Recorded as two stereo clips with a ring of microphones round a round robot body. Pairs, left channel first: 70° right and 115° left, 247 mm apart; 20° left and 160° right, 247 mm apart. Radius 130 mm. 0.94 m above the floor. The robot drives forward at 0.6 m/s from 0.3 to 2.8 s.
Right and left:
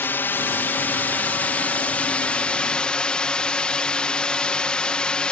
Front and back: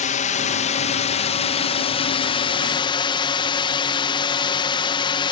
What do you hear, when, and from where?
0.0 s a drone: 5° left; by 5.3 s 10° left